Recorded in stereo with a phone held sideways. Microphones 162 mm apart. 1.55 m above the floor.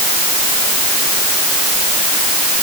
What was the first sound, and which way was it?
Only background noise.